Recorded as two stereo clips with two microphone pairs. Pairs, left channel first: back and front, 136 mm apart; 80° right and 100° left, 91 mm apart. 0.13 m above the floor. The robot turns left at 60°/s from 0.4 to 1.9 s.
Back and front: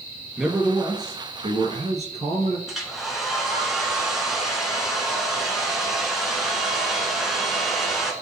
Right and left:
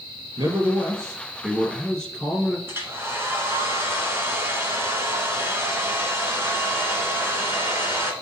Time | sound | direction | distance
0.4 | a man speaking | 90° left | 2.5 m
2.7 | a hair dryer | 85° left | 1.6 m